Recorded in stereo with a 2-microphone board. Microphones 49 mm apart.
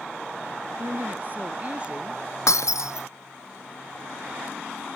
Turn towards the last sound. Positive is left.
turn(degrees=85)